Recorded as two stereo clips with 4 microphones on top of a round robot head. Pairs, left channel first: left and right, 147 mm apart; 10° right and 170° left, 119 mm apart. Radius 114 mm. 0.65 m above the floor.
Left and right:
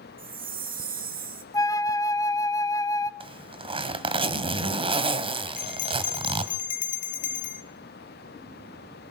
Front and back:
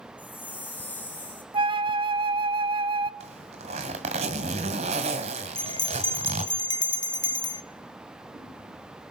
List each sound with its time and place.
0.2 s a chime: 85° right, 2 m
1.5 s a flute: 150° left, 1.3 m
3.2 s a zipper: 145° right, 2 m
5.5 s a bell: 45° left, 1.0 m